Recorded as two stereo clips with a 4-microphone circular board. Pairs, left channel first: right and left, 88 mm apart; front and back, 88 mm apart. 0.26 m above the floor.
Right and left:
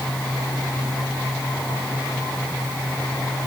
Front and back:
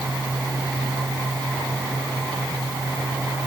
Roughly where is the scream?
No scream in this recording.